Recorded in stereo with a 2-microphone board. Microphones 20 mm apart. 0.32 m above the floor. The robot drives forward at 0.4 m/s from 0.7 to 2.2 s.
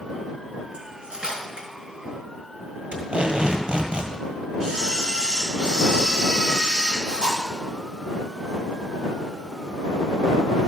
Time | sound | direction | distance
0.7 | cutlery clinking | 65° right (ahead or behind) | 2 m
2.9 | tape being pulled | 80° right | 1.5 m
4.6 | a camera shutter | 50° right (ahead or behind) | 3.5 m